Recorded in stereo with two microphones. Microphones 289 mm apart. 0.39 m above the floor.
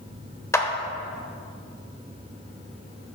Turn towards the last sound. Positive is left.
turn(degrees=10)  # may be behind; listen again after turning